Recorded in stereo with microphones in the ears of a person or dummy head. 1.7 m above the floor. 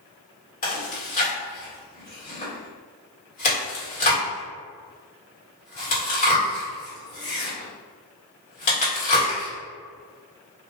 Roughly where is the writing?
I don't hear writing.